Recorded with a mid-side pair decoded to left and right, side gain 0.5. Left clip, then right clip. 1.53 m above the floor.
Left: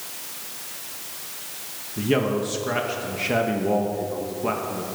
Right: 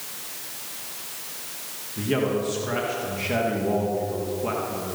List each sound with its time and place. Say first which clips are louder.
2.0 s a man speaking: left 2 dB; 25° left, 2 m